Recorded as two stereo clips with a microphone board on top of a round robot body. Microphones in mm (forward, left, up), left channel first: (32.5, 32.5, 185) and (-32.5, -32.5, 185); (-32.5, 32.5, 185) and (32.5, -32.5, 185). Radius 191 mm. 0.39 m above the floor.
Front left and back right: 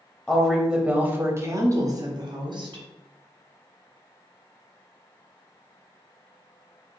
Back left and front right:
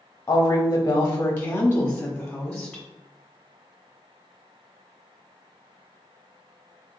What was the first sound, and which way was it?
A woman speaking, 115° left.